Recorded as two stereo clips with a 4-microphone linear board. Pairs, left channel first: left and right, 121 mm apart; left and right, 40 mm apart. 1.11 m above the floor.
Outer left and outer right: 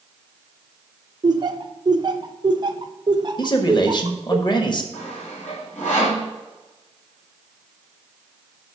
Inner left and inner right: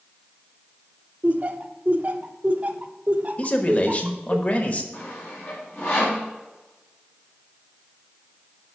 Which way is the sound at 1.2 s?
40° right (ahead or behind).